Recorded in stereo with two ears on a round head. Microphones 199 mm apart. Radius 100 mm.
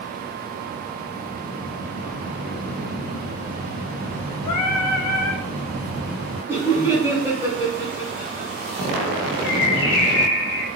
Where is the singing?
85° left, 0.6 m.